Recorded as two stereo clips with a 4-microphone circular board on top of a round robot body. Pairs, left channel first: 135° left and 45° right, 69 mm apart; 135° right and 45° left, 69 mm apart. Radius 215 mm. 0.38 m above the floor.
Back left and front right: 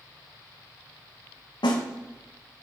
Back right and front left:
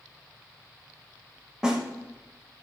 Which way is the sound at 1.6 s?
125° left.